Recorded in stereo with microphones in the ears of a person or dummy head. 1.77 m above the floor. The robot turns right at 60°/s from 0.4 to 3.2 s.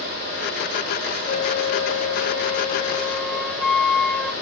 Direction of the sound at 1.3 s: 65° left.